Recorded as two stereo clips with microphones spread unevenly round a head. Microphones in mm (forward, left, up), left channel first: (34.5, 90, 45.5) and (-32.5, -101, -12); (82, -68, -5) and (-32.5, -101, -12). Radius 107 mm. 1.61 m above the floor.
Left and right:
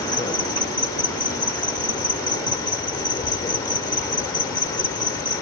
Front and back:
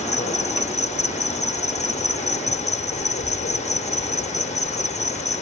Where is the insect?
Straight ahead.